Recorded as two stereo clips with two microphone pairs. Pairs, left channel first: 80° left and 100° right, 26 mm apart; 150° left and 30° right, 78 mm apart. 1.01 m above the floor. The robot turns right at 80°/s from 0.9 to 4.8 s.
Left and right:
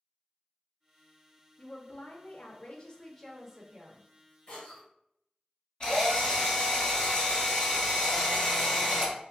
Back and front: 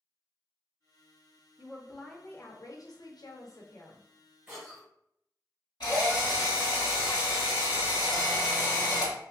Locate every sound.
1.6 s a woman speaking: 25° left, 0.6 m; by 4.0 s 135° right, 0.6 m
4.5 s a cough: 50° left, 1.2 m; by 4.9 s 80° left, 1.2 m
5.8 s a drill: 130° left, 1.8 m